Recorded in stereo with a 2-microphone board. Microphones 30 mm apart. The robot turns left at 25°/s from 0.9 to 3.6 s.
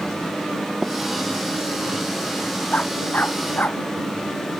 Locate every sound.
0.8 s tapping: 20° right (ahead or behind); by 0.9 s 25° right (ahead or behind)
2.7 s a dog barking: 60° left (ahead or behind); by 3.8 s 80° left